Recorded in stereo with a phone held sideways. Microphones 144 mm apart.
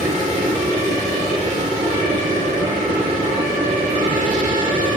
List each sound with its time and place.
0.0 s a machine running: 80° right, 4.5 m